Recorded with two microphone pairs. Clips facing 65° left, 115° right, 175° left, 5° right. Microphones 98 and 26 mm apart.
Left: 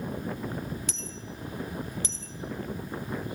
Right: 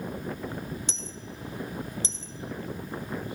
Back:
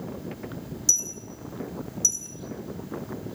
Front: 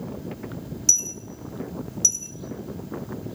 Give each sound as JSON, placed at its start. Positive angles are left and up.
{"t": 0.9, "sound": "a dropped coin", "azimuth_deg": -55, "distance_m": 0.8}